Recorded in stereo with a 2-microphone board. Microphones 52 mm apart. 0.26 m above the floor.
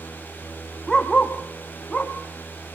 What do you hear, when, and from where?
0.9 s a dog barking: 10° left (ahead or behind), 3.5 m; by 2.1 s 20° left (ahead or behind), 4.5 m